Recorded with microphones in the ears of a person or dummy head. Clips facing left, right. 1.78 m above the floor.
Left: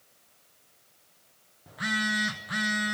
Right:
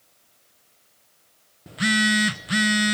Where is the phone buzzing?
30° right (ahead or behind), 0.7 m.